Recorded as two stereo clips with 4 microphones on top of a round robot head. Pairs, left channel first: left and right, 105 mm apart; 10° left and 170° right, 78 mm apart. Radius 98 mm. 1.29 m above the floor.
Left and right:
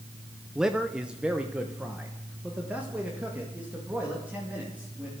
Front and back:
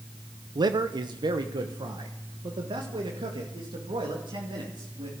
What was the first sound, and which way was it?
A man speaking, 175° right.